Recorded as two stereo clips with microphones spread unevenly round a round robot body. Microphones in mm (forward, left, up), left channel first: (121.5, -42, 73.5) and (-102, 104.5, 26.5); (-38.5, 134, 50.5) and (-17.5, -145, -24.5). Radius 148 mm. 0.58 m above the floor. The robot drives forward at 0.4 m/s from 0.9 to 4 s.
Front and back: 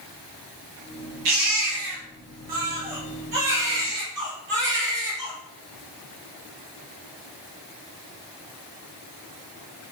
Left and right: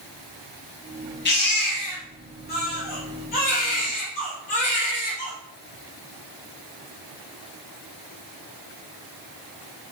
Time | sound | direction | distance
1.2 | a baby crying | 145° left | 3 m